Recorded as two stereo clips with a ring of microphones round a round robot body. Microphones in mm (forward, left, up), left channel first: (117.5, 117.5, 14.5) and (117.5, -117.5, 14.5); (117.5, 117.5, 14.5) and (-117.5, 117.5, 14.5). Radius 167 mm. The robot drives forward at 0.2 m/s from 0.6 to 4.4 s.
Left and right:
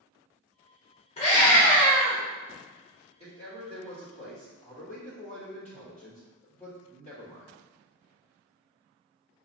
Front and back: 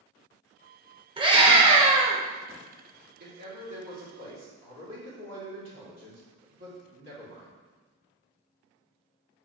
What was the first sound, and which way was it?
A scream, 130° left.